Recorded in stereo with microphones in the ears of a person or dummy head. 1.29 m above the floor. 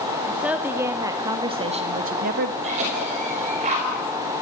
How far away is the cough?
About 5 m.